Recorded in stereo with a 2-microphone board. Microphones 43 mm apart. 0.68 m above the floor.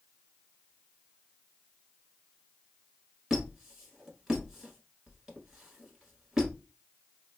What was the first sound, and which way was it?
A squeak, 15° right (ahead or behind).